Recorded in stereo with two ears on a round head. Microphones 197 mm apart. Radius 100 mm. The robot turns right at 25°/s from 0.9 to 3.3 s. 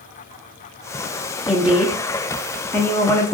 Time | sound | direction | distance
1.5 | a woman speaking | 5° right (ahead or behind) | 0.6 m